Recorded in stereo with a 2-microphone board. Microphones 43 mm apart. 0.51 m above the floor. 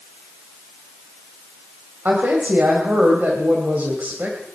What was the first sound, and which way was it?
A woman speaking, 50° right (ahead or behind).